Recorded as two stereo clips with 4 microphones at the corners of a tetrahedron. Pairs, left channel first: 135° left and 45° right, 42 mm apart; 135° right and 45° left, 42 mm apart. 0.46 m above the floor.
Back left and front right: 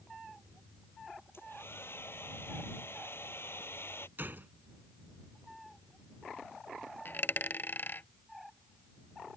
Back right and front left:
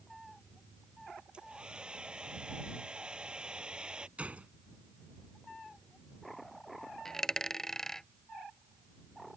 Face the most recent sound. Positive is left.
turn(degrees=150)